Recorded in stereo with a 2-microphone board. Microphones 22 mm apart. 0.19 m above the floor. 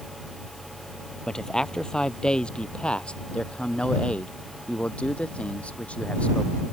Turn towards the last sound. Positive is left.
turn(degrees=60)  # may be behind; listen again after turning